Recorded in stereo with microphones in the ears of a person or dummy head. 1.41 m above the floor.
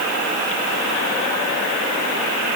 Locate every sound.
Only background noise.